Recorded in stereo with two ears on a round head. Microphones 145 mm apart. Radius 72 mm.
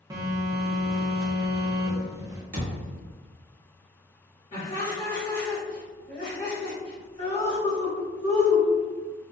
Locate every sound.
0.1 s a phone buzzing: 20° right (ahead or behind), 0.5 m
2.5 s a thud: 50° right (ahead or behind), 1.1 m
4.5 s laughter: 40° left (ahead or behind), 1.3 m